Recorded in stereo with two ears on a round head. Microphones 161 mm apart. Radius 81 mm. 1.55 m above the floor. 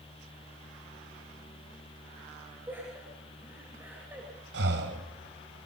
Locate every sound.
2.7 s laughter: 10° right (ahead or behind), 9 m
4.5 s breathing: 70° right (ahead or behind), 3.5 m